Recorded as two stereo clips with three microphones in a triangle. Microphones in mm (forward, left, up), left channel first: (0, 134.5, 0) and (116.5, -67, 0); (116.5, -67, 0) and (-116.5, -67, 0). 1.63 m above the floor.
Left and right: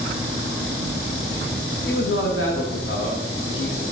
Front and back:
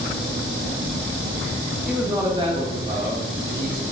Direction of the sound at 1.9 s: 90° left.